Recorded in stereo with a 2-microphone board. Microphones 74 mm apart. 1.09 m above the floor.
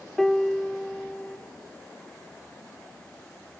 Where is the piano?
5° left (ahead or behind), 0.6 m.